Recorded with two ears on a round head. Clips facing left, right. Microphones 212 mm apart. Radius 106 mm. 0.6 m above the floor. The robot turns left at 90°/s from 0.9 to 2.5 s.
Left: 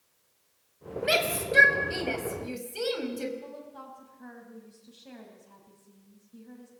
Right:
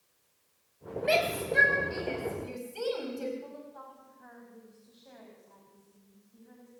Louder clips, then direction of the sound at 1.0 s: Even; 15° left (ahead or behind).